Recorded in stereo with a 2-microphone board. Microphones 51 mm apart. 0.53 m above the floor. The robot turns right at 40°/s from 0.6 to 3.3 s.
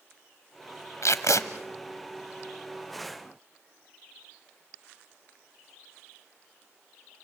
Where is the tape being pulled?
70° left (ahead or behind), 0.9 m; by 1.4 s 85° left, 0.9 m.